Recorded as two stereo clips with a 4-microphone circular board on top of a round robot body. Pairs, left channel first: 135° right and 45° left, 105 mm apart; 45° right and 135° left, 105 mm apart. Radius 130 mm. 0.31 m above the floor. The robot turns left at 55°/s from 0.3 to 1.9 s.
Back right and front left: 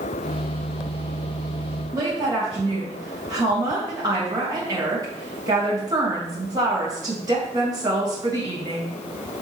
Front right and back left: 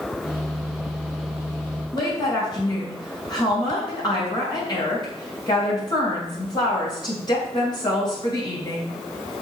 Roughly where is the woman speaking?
Ahead.